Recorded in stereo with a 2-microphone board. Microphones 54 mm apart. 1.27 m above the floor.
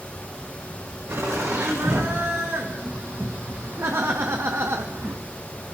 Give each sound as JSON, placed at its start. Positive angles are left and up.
{"t": 1.1, "sound": "laughter", "side_deg": -50, "distance_m": 3.0}